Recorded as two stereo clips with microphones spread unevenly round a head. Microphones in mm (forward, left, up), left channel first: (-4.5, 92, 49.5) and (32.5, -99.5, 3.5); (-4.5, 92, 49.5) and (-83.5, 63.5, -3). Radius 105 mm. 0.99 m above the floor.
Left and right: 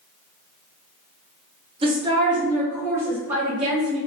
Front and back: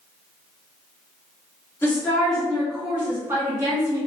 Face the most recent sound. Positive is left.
turn(degrees=-160)